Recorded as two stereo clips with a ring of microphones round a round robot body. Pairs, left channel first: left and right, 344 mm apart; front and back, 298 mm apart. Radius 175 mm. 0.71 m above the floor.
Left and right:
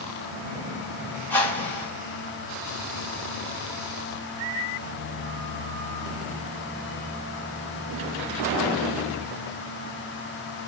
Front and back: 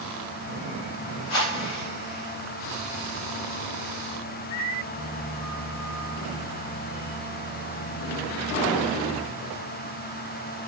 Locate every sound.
1.3 s a whoosh: 5° left, 1.4 m